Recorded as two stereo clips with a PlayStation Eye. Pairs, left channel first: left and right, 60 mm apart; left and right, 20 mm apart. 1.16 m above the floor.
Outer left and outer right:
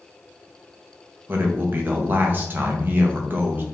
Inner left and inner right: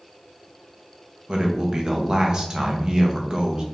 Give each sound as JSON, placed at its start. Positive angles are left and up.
{"t": 1.3, "sound": "a man speaking", "side_deg": -35, "distance_m": 1.0}